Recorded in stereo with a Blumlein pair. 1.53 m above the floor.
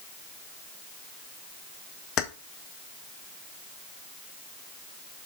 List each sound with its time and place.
2.2 s keys jangling: 35° left, 1.3 m